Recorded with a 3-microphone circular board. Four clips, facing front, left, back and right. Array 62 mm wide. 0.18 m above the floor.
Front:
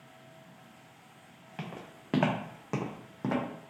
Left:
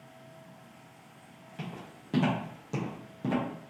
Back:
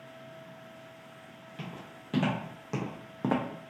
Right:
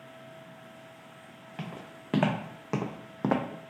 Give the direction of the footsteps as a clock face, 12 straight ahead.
1 o'clock.